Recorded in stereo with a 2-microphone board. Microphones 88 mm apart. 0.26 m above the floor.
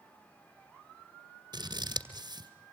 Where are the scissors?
55° right (ahead or behind), 2 m.